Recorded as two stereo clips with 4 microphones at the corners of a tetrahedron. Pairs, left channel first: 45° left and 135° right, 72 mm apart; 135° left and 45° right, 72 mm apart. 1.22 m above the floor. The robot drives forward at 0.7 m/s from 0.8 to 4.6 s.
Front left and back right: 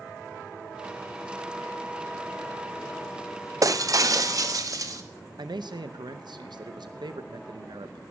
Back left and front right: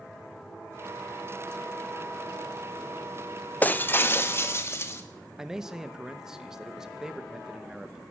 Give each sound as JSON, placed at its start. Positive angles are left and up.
{"t": 3.6, "sound": "breaking glass", "azimuth_deg": -160, "distance_m": 0.6}
{"t": 5.4, "sound": "a man speaking", "azimuth_deg": -125, "distance_m": 0.9}